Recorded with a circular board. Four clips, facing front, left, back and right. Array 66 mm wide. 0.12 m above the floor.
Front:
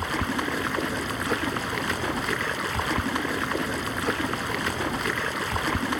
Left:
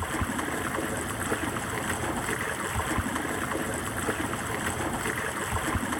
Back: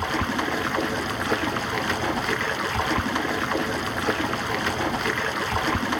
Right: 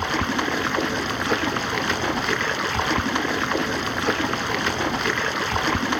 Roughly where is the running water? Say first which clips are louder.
Right 7 dB, back 2 dB; right.